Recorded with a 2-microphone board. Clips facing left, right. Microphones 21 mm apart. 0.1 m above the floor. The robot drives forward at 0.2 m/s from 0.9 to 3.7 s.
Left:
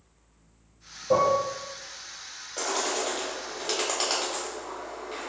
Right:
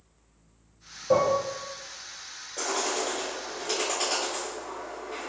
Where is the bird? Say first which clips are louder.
Even; 65° left (ahead or behind), 1.4 m.